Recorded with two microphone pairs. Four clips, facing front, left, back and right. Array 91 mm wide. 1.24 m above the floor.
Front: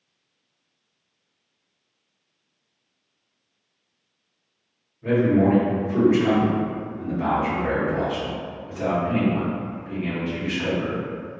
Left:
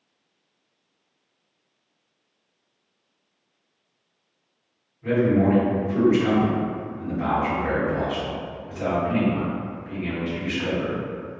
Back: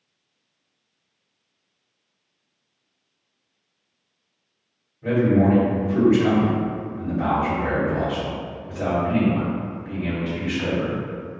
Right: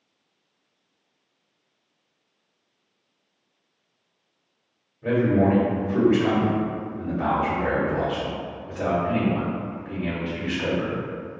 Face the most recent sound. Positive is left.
turn(degrees=-110)